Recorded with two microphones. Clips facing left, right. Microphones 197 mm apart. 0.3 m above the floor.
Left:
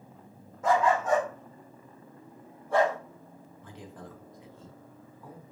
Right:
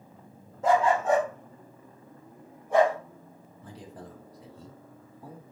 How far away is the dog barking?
About 5 m.